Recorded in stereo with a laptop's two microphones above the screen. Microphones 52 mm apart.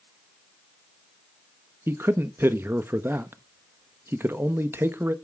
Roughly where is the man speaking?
Right.